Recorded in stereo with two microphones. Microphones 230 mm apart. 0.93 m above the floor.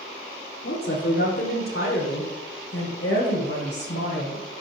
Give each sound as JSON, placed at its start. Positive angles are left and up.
{"t": 0.6, "sound": "a woman speaking", "side_deg": 70, "distance_m": 2.5}